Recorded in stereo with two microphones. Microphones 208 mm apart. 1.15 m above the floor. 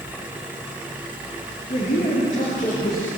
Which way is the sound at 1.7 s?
35° left (ahead or behind).